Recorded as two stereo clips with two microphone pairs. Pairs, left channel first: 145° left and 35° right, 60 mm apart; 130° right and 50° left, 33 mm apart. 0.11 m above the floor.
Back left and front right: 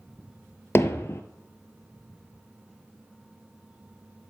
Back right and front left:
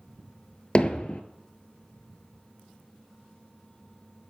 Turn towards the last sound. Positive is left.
turn(degrees=175)